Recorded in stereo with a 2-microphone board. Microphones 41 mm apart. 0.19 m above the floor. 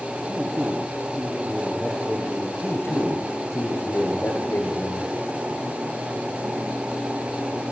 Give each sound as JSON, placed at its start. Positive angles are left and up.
{"t": 0.3, "sound": "a man speaking", "side_deg": -10, "distance_m": 5.0}
{"t": 2.6, "sound": "a man speaking", "side_deg": 80, "distance_m": 9.0}